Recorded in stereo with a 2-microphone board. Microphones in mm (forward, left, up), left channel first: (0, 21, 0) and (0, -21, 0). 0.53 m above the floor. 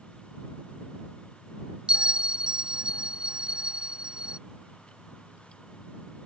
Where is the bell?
25° right (ahead or behind).